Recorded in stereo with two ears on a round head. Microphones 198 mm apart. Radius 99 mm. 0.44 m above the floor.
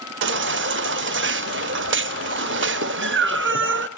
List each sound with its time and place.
0.2 s a baby crying: 55° right (ahead or behind), 0.7 m